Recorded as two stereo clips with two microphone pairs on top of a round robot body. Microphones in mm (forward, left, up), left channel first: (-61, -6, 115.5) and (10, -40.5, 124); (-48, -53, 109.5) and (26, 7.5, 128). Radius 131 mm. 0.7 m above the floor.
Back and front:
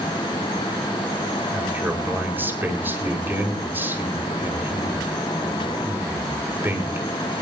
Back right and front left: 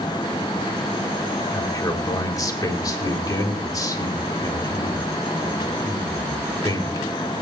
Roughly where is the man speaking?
Right.